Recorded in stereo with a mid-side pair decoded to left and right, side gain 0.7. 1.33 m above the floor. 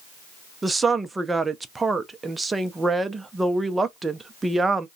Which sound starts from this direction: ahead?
A woman speaking, at 0.6 s.